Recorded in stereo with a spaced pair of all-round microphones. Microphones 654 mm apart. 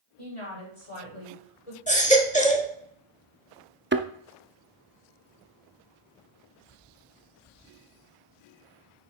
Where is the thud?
20° right (ahead or behind), 0.6 m.